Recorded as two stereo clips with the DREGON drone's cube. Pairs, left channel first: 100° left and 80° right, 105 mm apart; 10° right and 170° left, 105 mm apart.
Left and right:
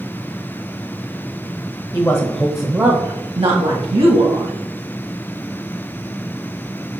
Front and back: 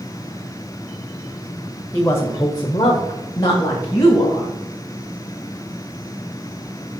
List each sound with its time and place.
1.9 s a woman speaking: 55° left, 1.2 m; by 4.5 s 70° right, 2.5 m